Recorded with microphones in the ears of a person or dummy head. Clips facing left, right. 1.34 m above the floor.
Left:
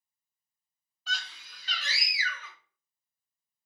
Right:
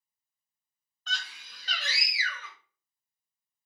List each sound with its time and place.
1.1 s a scream: 5° left (ahead or behind), 0.5 m; by 2.5 s 70° right (ahead or behind), 0.9 m